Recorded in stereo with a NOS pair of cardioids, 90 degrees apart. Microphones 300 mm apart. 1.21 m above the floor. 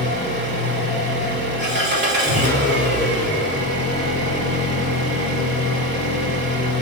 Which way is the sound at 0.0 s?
35° right.